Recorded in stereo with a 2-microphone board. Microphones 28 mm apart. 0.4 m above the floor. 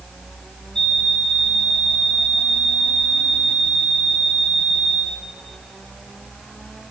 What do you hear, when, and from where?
0.8 s an alarm clock: 25° left (ahead or behind), 1.4 m